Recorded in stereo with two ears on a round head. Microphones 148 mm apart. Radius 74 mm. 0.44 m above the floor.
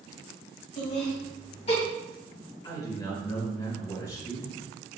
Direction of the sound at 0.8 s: 30° left (ahead or behind).